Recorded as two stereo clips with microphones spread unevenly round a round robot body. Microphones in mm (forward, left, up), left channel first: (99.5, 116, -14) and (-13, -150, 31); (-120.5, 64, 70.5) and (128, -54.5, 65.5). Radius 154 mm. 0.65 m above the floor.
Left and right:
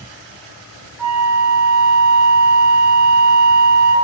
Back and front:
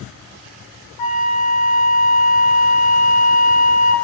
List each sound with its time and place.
1.0 s a flute: 160° left, 0.6 m